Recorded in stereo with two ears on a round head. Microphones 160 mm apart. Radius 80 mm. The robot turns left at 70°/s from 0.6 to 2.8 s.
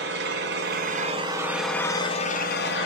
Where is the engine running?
110° right, 2.5 m; by 2.9 s 100° left, 2.5 m.